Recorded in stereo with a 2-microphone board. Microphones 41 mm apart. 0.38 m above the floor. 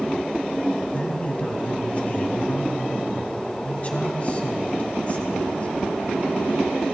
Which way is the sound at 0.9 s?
35° left (ahead or behind).